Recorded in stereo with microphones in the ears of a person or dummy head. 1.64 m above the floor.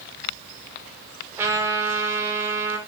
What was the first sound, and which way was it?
A trumpet, 15° right (ahead or behind).